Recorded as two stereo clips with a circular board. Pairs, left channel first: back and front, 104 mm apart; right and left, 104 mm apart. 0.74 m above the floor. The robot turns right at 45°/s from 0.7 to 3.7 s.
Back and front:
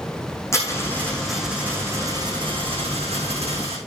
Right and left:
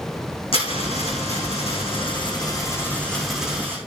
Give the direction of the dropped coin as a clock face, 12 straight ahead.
4 o'clock.